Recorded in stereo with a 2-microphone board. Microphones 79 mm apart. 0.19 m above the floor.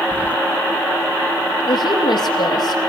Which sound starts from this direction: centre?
Keys jangling, at 0.1 s.